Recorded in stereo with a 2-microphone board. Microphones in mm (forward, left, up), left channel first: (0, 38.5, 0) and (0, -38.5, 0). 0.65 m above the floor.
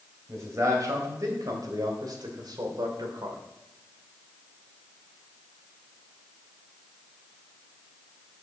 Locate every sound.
0.3 s a man speaking: 40° right (ahead or behind), 3 m; by 3.4 s 70° right (ahead or behind), 1.9 m